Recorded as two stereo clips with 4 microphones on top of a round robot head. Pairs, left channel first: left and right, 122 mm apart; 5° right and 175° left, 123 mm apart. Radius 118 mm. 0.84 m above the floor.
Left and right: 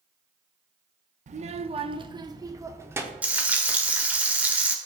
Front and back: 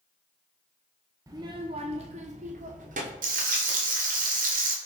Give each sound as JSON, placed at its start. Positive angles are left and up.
{"t": 1.3, "sound": "a child speaking", "azimuth_deg": -115, "distance_m": 0.7}
{"t": 3.2, "sound": "frying", "azimuth_deg": -170, "distance_m": 1.2}